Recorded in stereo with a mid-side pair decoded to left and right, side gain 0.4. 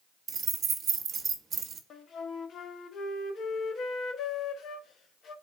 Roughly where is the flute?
Ahead left.